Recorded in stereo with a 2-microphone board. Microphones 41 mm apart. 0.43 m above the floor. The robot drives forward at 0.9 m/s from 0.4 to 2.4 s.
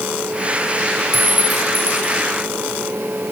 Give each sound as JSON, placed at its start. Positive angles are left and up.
{"t": 1.1, "sound": "a clink", "side_deg": -55, "distance_m": 2.0}